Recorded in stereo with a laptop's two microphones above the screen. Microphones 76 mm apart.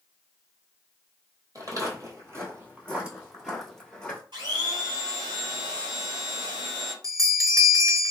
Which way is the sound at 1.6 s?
45° right (ahead or behind).